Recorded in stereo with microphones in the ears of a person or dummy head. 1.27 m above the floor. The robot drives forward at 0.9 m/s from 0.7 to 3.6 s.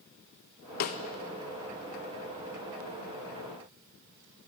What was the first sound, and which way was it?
A snare drum, 45° left (ahead or behind).